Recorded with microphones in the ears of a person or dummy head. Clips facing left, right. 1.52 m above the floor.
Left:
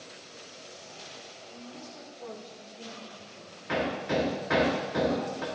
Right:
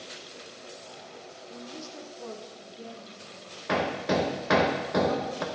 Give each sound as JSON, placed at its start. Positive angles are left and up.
{"t": 1.5, "sound": "a woman speaking", "side_deg": -65, "distance_m": 0.8}
{"t": 3.7, "sound": "hammering", "side_deg": -65, "distance_m": 1.1}